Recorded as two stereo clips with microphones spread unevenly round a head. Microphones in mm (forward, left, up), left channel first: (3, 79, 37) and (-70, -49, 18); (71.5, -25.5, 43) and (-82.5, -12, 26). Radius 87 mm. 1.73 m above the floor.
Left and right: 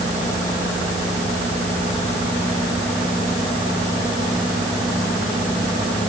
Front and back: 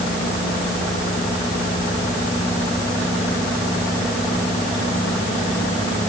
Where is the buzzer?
I don't hear a buzzer.